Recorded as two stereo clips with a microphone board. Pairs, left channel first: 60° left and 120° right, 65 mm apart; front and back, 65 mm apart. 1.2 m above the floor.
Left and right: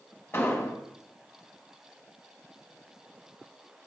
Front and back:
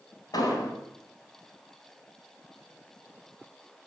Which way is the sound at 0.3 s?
5° left.